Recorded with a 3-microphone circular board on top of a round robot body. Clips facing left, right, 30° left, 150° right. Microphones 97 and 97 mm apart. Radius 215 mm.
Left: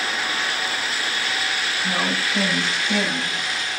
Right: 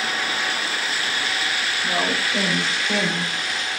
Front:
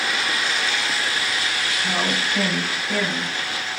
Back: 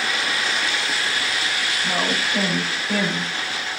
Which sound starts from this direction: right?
A woman speaking, at 1.8 s.